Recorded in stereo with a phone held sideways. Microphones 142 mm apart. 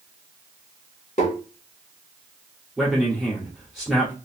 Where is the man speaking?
Centre (ahead or behind), 1.7 m.